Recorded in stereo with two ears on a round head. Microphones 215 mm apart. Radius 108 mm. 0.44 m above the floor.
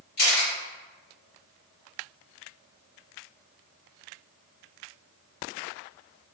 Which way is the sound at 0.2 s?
40° left (ahead or behind).